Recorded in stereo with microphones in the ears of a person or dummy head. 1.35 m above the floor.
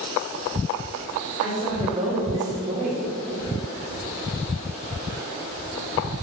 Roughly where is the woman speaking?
Right.